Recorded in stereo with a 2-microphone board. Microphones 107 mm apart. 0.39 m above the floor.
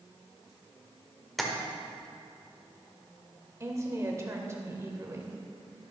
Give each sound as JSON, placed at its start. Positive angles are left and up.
{"t": 1.4, "sound": "tapping", "side_deg": 0, "distance_m": 1.4}
{"t": 3.6, "sound": "a woman speaking", "side_deg": -30, "distance_m": 1.6}